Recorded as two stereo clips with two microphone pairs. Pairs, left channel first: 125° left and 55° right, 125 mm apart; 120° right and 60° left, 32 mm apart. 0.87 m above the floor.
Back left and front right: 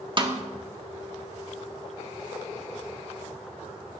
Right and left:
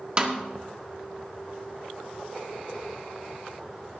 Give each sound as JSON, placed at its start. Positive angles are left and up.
{"t": 0.2, "sound": "a snare drum", "azimuth_deg": 0, "distance_m": 1.6}